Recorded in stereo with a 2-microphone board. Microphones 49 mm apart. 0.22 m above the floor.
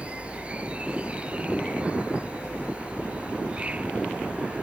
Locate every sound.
0.0 s an insect: 25° right (ahead or behind)